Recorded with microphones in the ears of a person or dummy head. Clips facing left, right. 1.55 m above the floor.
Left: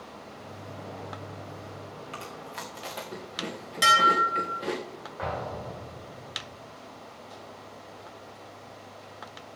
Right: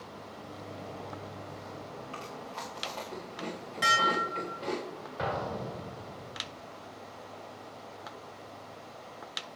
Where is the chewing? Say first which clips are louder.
Left 1 dB; 25° left (ahead or behind), 1.5 m.